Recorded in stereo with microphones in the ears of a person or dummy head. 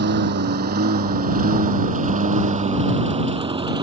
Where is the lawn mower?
50° right (ahead or behind); by 3.8 s 25° right (ahead or behind).